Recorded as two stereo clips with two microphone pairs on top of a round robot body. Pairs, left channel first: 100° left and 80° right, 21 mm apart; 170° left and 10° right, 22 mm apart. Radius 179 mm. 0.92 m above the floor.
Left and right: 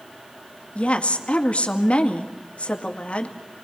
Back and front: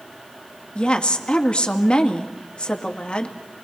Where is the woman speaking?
130° left, 2.5 m.